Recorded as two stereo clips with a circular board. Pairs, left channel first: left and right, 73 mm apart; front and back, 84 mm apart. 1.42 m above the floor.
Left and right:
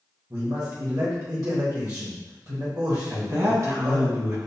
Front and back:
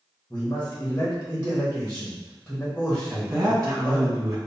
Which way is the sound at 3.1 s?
130° right.